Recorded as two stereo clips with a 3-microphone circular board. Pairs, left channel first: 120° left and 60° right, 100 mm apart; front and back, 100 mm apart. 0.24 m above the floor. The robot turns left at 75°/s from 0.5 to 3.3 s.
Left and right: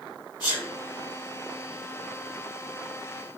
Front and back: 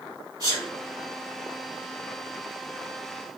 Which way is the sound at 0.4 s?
150° left.